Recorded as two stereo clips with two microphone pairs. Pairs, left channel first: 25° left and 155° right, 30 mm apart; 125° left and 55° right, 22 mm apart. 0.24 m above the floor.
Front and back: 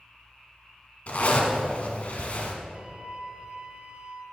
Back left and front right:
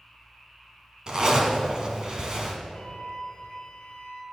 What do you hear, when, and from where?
1.1 s a zipper: 5° right, 1.4 m
2.7 s a flute: 150° left, 1.0 m